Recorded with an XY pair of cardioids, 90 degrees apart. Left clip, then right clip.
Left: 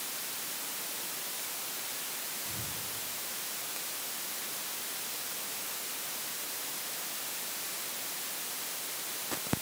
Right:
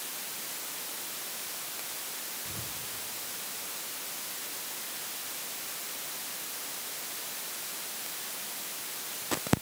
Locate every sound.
2.5 s whispering: 35° right, 1.0 m